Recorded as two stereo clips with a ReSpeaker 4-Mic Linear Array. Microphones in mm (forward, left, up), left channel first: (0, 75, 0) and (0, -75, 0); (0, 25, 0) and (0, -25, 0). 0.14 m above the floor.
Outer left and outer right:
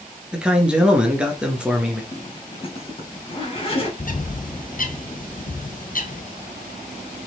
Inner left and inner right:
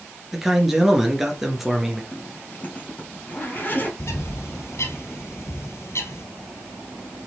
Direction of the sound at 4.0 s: 65° left (ahead or behind).